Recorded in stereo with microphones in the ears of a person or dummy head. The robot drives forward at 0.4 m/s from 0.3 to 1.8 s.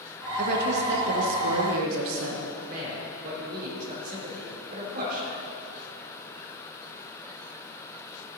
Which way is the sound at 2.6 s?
50° right (ahead or behind).